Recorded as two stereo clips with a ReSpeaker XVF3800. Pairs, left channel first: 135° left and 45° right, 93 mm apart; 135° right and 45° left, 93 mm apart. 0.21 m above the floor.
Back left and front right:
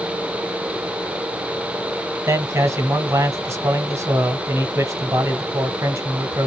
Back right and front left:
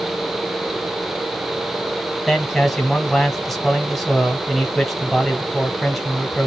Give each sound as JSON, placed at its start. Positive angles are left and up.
{"t": 2.3, "sound": "a man speaking", "azimuth_deg": -50, "distance_m": 1.2}